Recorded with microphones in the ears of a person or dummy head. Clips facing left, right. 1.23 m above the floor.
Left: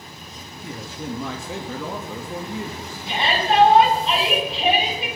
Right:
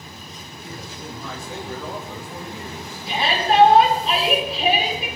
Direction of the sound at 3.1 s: Centre (ahead or behind).